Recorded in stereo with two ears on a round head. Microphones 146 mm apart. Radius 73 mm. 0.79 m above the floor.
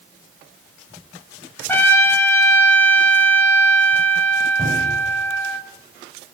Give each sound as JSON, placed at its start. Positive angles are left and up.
{"t": 1.7, "sound": "a trumpet", "side_deg": 15, "distance_m": 1.8}
{"t": 4.6, "sound": "a cupboard door", "side_deg": -15, "distance_m": 5.5}